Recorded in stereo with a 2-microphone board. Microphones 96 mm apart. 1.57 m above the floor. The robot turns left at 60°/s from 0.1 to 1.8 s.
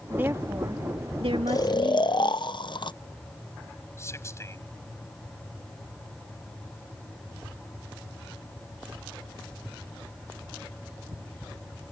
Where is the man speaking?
30° left (ahead or behind).